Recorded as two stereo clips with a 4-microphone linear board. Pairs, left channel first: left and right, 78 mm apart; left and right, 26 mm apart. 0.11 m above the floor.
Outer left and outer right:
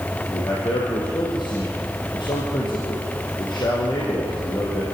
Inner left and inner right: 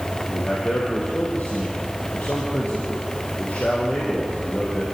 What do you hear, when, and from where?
0.3 s a man speaking: 70° left (ahead or behind), 5 m